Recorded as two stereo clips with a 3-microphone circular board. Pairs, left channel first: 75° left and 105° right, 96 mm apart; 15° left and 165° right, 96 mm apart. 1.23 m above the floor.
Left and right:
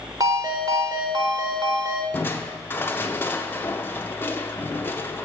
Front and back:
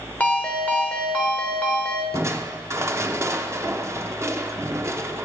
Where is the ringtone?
60° right, 1.8 m.